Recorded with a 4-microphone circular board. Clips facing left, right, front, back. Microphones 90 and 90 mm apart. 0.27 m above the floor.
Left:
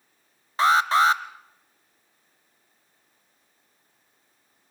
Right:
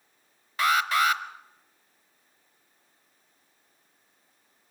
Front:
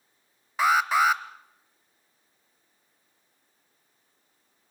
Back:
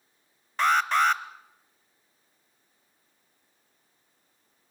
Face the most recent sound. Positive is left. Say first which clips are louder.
# left 5 dB, front 1 dB
turn(degrees=75)